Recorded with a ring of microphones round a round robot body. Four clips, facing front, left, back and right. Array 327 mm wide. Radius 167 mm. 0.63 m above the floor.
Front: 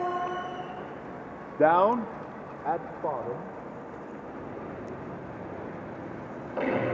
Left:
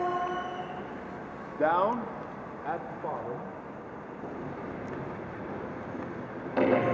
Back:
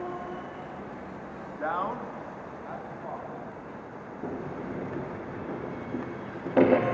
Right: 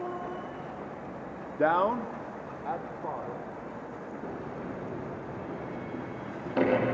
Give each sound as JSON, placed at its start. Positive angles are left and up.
{"t": 1.6, "sound": "a man speaking", "azimuth_deg": -15, "distance_m": 0.8}
{"t": 4.2, "sound": "a sliding door", "azimuth_deg": -170, "distance_m": 7.0}